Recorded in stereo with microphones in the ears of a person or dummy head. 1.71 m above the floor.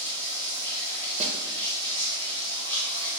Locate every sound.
0.0 s running water: 35° right (ahead or behind), 1.1 m
1.2 s a snare drum: 35° right (ahead or behind), 0.6 m